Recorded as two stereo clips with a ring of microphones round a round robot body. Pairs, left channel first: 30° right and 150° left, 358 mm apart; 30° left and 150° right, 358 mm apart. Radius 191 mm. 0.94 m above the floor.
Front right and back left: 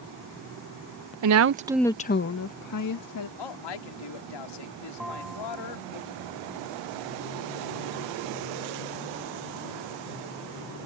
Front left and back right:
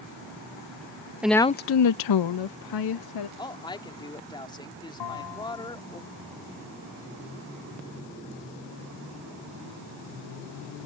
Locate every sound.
1.2 s a woman speaking: 125° left; by 3.3 s 5° left
3.4 s a woman speaking: 50° right
5.0 s a bell: 60° left